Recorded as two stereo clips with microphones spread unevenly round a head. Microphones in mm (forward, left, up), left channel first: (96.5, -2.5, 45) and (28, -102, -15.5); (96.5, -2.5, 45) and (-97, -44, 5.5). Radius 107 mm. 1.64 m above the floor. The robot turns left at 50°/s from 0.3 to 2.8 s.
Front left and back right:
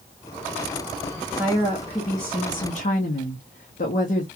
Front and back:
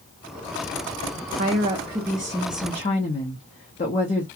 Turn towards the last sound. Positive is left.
turn(degrees=70)